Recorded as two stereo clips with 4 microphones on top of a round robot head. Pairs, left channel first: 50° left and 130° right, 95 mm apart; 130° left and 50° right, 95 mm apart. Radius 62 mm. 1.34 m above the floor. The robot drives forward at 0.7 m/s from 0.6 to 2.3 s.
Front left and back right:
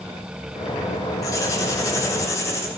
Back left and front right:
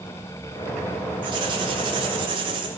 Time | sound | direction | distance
1.2 | writing | 10° right | 4 m